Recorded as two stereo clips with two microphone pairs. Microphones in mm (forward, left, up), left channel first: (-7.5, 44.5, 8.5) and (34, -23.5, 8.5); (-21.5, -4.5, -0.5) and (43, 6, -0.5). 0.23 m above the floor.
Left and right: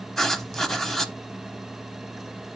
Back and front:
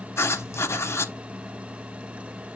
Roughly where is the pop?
No pop in this recording.